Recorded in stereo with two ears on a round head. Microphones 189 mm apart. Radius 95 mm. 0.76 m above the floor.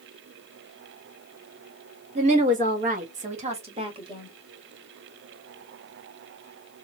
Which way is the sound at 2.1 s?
35° right (ahead or behind).